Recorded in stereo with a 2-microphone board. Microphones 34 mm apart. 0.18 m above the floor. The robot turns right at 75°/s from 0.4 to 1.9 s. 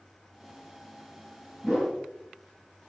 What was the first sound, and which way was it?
A whoosh, 5° right (ahead or behind).